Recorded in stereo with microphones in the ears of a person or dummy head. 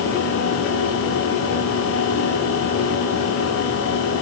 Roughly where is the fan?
Left.